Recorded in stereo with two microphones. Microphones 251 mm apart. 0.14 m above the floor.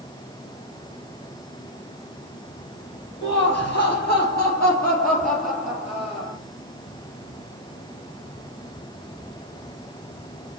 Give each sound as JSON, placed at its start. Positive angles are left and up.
{"t": 3.2, "sound": "laughter", "side_deg": 45, "distance_m": 4.0}